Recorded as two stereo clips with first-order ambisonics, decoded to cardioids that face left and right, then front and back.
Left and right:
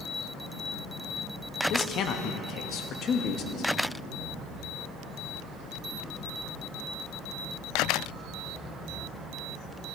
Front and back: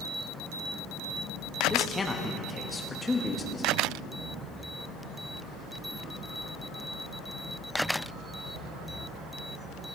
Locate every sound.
1.7 s a man speaking: 75° left, 0.8 m